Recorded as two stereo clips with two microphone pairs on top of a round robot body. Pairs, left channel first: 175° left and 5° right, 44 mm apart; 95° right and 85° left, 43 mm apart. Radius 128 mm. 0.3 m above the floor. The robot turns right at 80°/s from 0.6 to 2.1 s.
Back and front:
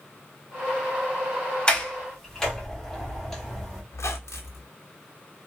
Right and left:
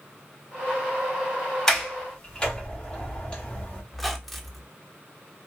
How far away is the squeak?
About 0.5 m.